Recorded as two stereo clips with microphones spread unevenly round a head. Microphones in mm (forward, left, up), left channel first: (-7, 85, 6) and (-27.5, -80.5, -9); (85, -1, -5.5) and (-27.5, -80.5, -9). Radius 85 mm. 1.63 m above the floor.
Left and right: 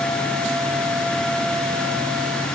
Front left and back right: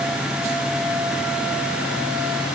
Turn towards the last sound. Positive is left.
No sound to turn to.